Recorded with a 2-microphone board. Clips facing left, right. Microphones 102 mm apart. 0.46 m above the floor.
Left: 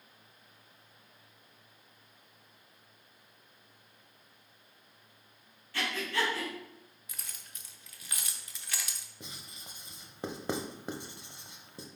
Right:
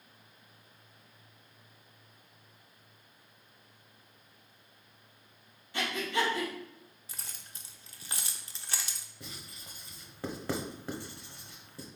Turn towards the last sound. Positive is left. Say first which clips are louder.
# right 1 dB
turn(degrees=20)  # may be behind; listen again after turning